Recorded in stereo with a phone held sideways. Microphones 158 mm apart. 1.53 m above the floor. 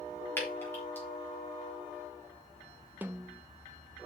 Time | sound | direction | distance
0.4 | dripping | 15° left (ahead or behind) | 3.5 m
3.0 | a snare drum | 10° right (ahead or behind) | 0.7 m